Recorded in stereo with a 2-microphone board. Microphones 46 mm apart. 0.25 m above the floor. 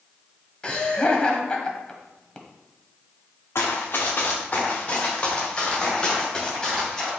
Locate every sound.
0.6 s laughter: 25° left (ahead or behind), 1.2 m
3.5 s running footsteps: 60° left (ahead or behind), 1.4 m; by 7.1 s 10° left (ahead or behind), 4.5 m